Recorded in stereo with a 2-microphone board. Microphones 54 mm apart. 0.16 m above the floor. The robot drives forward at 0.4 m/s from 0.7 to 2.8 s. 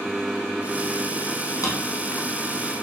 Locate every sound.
1.6 s a drawer: 85° left, 2.0 m